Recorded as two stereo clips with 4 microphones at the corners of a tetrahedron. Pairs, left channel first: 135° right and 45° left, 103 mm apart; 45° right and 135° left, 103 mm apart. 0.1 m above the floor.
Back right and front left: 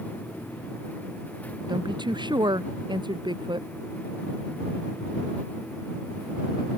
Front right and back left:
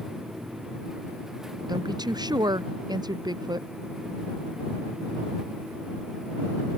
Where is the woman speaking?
90° left.